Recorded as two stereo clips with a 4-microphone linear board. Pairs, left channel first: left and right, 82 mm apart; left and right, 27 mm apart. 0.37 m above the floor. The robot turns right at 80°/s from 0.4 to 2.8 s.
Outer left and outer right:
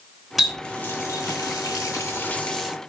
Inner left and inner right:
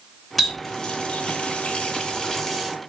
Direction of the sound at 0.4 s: 5° right (ahead or behind).